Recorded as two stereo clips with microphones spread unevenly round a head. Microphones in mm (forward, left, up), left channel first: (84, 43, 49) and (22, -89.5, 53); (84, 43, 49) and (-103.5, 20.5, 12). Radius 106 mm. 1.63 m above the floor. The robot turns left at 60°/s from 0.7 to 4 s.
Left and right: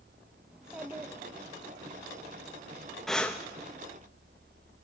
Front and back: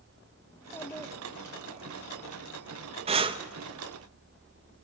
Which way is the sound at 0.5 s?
40° right.